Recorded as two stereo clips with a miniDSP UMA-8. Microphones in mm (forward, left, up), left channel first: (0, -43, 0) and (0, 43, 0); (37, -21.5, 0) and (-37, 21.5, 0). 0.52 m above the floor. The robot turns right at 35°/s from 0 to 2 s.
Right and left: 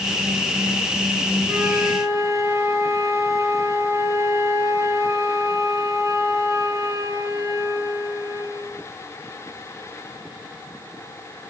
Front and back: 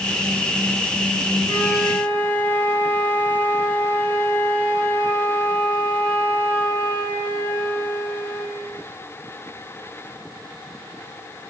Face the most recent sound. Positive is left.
turn(degrees=45)